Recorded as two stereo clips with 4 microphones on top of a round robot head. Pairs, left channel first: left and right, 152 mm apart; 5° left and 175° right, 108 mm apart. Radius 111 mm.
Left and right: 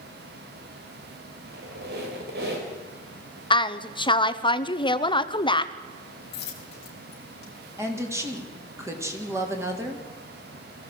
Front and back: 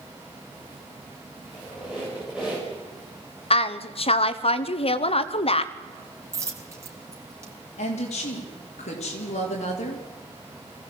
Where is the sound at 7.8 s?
20° right, 3 m.